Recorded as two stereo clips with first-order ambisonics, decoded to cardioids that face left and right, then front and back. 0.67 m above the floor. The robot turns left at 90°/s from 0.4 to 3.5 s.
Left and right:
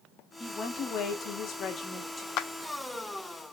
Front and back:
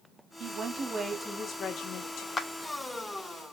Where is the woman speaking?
165° left, 0.8 m; by 2.3 s 5° right, 0.8 m.